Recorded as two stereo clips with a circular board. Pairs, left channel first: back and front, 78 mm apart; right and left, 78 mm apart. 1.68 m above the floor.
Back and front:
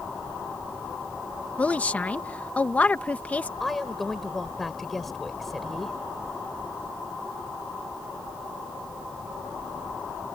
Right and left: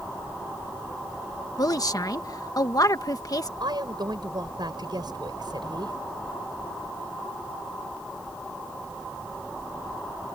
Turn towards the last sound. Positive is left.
turn(degrees=90)